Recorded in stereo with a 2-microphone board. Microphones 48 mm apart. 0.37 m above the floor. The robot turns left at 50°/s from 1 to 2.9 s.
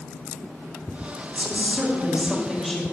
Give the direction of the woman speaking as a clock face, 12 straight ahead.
4 o'clock.